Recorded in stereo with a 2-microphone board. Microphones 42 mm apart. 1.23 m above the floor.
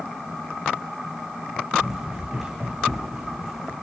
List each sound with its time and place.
1.8 s running footsteps: 10° right (ahead or behind), 5.5 m; by 3.7 s 5° right (ahead or behind), 4 m